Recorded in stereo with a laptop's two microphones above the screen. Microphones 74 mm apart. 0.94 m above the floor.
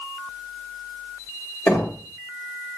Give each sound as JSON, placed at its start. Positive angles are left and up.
{"t": 1.7, "sound": "knocking", "side_deg": 20, "distance_m": 1.9}